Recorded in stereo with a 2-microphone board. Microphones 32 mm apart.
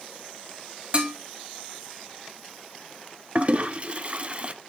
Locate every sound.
0.9 s dishes clattering: 35° right (ahead or behind), 2.5 m
3.4 s a toilet flushing: 40° right (ahead or behind), 0.7 m